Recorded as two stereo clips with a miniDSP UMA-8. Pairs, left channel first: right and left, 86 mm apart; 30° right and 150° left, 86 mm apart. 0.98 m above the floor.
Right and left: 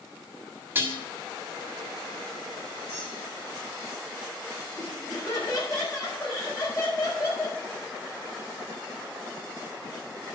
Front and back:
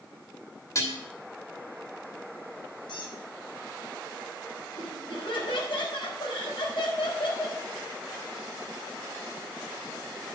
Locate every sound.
0.8 s dishes clattering: 20° left, 1.7 m
2.9 s a squeak: 30° right, 3.5 m
4.8 s laughter: 40° right, 5 m